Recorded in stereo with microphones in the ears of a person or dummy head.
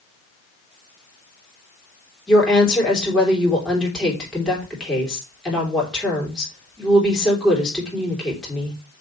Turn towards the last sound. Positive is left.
turn(degrees=5)  # may be behind; listen again after turning